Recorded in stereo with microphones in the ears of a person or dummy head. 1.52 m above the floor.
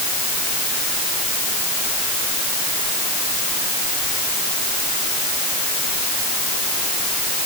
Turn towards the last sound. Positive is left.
No sound to turn to.